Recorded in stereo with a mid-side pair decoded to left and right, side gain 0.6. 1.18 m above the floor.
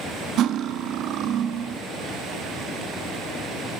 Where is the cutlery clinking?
55° right, 1.1 m.